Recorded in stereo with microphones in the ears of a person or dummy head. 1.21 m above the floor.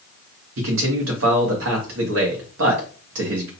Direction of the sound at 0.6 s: 85° right.